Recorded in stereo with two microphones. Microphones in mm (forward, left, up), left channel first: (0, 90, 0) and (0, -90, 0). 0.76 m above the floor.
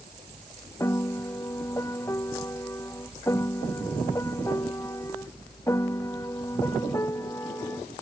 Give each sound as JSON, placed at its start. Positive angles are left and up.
{"t": 0.8, "sound": "a piano", "side_deg": 15}